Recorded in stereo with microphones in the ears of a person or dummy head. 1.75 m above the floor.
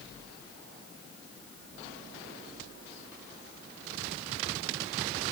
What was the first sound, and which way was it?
Only background noise.